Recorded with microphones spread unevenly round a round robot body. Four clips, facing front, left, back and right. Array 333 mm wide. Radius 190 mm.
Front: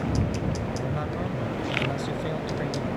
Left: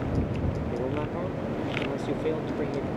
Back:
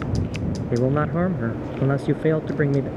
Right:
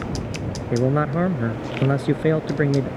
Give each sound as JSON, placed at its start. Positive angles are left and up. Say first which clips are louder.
{"t": 0.7, "sound": "a man speaking", "louder": "right 13 dB, back 9 dB", "azimuth_deg": -120}